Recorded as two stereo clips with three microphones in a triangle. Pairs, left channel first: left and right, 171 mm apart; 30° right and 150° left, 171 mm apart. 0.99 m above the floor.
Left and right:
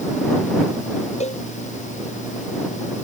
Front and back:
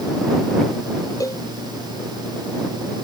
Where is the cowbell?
40° left.